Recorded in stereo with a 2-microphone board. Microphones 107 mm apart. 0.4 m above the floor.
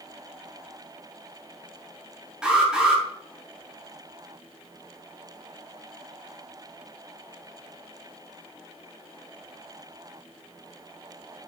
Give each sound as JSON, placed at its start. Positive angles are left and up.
{"t": 2.4, "sound": "an alarm", "side_deg": -5, "distance_m": 9.0}